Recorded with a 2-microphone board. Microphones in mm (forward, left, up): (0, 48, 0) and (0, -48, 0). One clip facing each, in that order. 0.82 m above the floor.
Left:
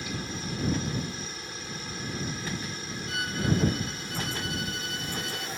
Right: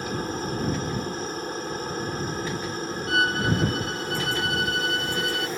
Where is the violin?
55° right (ahead or behind).